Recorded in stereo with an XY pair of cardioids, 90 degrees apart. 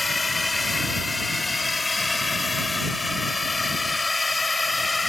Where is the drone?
20° left.